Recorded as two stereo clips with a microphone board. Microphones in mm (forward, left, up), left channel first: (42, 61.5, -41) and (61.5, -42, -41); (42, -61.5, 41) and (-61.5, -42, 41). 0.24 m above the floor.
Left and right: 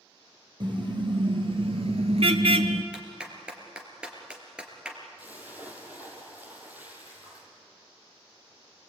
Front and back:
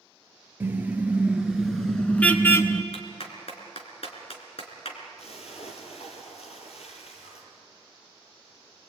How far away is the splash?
About 4.5 m.